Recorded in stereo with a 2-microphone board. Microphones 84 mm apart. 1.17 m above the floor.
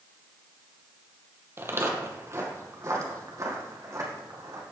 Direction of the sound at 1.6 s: 30° right (ahead or behind).